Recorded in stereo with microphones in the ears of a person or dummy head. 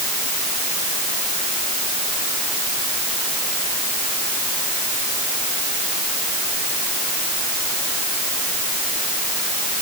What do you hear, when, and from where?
Only background noise.